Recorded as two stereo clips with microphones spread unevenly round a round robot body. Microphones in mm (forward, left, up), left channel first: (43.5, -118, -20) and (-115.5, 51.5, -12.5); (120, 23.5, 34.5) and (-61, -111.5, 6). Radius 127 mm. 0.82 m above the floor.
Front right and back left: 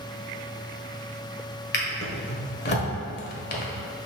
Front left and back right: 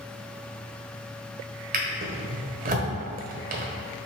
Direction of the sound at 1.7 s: 90° right.